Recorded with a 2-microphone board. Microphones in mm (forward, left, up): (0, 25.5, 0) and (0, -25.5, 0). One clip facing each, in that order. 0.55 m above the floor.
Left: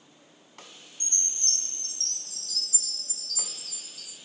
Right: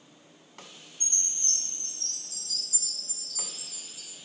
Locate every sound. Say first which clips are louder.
1.0 s a chime: left 2 dB; 70° left (ahead or behind), 7 m